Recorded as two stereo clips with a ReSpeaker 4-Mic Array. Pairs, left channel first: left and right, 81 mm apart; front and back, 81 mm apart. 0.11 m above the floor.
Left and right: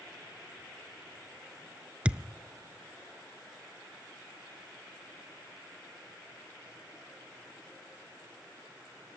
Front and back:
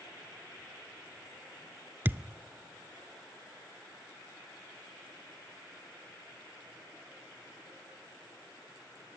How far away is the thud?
About 0.5 m.